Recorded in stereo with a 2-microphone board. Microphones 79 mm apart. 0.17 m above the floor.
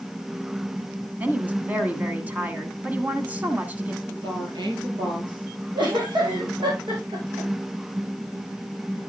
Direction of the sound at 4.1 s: 70° right (ahead or behind).